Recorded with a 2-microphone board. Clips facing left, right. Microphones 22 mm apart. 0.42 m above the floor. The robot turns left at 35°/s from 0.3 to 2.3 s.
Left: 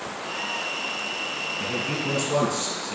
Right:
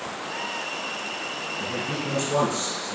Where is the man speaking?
50° left (ahead or behind), 5 m; by 3.0 s 25° left (ahead or behind), 5 m.